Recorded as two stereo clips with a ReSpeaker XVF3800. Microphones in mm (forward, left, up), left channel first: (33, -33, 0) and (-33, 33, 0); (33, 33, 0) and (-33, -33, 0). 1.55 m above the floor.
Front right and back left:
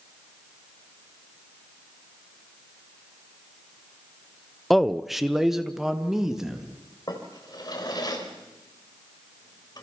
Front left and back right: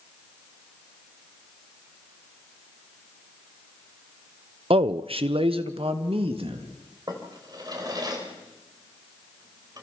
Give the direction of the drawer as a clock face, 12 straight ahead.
3 o'clock.